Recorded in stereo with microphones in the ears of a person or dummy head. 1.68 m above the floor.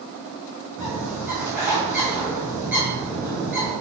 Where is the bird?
10° right (ahead or behind), 2.5 m.